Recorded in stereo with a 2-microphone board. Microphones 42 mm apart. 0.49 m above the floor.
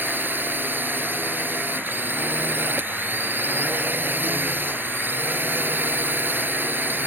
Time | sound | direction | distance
0.0 | a drone | 50° right (ahead or behind) | ?